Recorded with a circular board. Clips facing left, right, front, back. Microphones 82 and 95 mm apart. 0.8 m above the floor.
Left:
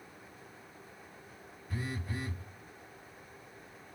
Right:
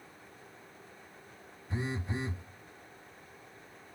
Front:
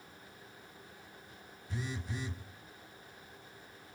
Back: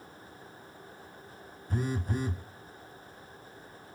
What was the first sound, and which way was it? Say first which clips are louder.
A phone buzzing: right 3 dB, back 8 dB; 150° right.